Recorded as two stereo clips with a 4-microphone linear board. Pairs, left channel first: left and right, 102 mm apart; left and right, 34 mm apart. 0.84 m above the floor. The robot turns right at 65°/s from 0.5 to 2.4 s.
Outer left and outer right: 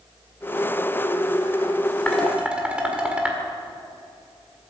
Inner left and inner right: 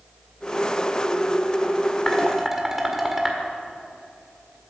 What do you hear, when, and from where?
2.1 s dishes clattering: 10° left (ahead or behind), 1.7 m; by 3.4 s 10° right (ahead or behind), 1.7 m